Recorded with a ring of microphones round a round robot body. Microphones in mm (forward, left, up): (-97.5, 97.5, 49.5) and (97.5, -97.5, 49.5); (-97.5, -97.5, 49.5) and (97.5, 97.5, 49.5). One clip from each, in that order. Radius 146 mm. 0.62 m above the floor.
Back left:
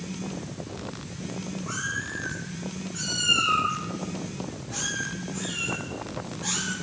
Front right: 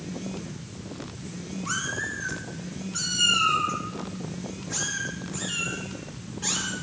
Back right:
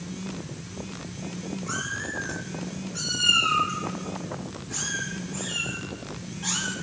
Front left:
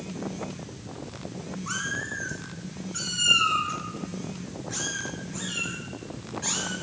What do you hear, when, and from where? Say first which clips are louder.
1.7 s a cat meowing: front right 2 dB, front left 1 dB; 10° left, 4.5 m; by 6.7 s 25° left, 7 m